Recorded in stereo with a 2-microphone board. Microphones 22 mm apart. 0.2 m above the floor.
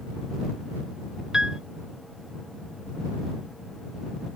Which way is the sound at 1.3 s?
25° right (ahead or behind).